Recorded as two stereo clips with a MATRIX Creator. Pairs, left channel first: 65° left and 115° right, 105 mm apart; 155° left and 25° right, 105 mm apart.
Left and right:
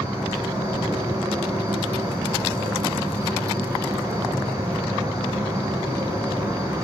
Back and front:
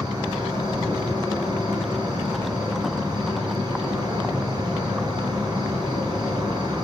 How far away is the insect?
About 1.8 m.